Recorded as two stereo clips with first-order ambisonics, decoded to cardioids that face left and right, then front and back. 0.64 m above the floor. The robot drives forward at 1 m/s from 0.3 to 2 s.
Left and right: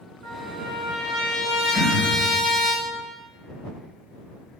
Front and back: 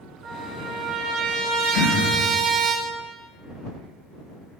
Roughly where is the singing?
No singing in this recording.